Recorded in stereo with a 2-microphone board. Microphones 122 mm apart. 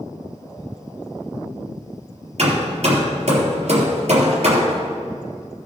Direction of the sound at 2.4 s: 60° right (ahead or behind).